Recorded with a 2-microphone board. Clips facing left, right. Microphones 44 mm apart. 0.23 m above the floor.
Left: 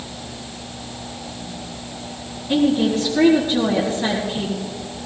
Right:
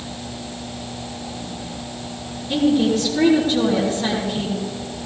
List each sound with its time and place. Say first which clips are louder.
2.5 s a woman speaking: even; 25° left (ahead or behind), 4 m